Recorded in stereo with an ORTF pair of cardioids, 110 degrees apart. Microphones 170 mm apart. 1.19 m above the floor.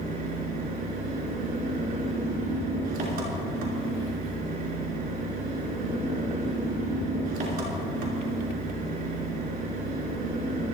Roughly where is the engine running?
Ahead right.